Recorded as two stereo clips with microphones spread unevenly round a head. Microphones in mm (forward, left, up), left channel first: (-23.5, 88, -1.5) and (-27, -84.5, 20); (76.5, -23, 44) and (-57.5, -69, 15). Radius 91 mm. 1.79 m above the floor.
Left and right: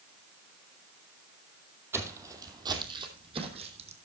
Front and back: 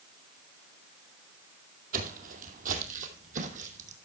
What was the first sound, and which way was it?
Footsteps, 155° right.